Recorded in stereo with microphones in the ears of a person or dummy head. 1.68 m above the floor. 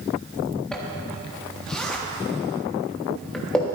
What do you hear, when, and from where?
0.7 s a zipper: 5° left (ahead or behind), 1.2 m